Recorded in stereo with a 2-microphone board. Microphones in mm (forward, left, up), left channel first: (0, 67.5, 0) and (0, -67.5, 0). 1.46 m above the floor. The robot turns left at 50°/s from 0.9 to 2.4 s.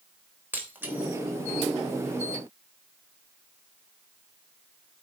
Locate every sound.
0.5 s breaking glass: 15° right (ahead or behind), 3 m; by 1.1 s 5° right (ahead or behind), 3 m